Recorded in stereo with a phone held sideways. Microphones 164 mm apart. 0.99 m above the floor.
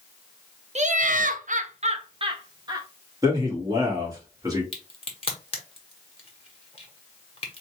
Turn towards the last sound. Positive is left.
turn(degrees=40)  # may be behind; listen again after turning